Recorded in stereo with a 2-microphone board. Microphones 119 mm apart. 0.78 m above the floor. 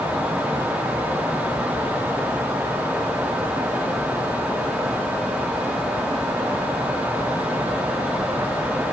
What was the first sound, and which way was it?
Only background noise.